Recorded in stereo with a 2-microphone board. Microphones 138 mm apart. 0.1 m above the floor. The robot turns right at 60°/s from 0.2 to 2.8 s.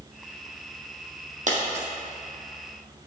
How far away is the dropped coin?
About 2.0 m.